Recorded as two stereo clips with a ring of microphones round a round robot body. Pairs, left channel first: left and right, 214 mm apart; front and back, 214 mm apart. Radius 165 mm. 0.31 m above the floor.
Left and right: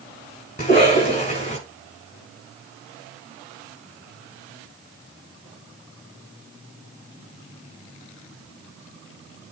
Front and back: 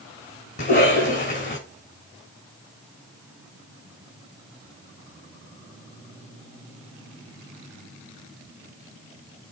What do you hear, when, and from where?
0.6 s a cough: 35° left, 4.5 m